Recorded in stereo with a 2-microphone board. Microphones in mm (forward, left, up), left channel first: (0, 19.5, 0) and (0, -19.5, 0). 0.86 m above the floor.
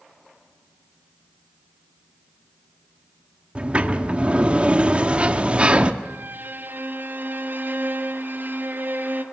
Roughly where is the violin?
Right.